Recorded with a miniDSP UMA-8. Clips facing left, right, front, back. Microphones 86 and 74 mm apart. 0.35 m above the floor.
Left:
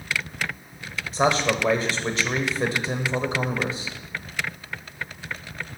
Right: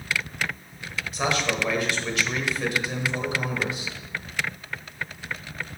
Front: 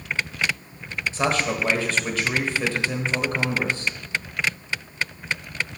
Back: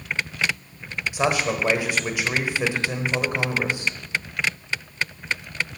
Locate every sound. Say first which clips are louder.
1.1 s a man speaking: left 5 dB, back 1 dB; 115° left, 1.1 m